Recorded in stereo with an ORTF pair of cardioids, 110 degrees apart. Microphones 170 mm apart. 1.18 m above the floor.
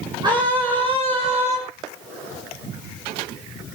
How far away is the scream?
About 6 m.